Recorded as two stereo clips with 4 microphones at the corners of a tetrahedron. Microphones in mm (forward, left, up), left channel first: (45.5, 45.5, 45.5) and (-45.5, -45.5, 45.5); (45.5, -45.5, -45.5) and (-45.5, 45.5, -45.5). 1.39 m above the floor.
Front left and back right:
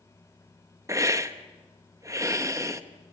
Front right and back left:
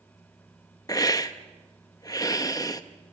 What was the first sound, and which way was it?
A hiss, 90° right.